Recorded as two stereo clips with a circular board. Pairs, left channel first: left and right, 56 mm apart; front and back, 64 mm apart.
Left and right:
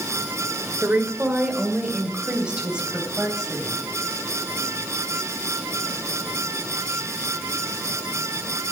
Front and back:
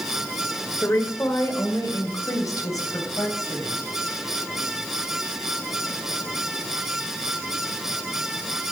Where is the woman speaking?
40° right, 1.7 m; by 3.8 s 10° right, 4 m.